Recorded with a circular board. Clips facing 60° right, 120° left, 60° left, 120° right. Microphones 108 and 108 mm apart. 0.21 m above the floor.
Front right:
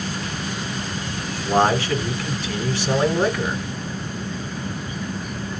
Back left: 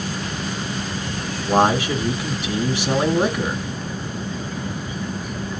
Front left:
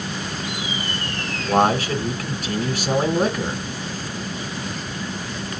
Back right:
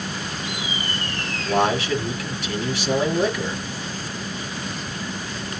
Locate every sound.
1.4 s a man speaking: 50° left, 1.7 m